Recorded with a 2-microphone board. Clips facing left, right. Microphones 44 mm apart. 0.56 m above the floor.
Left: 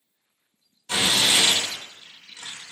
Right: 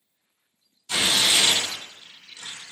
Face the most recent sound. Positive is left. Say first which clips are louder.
# left 1 dB
turn(degrees=35)  # may be behind; listen again after turning